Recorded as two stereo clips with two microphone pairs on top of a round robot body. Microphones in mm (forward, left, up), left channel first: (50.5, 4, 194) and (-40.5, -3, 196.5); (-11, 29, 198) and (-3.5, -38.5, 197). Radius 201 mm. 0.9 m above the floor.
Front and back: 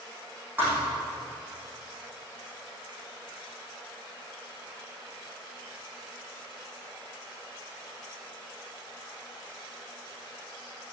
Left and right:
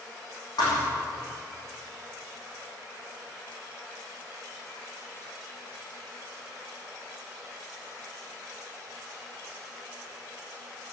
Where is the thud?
115° left, 5.5 m.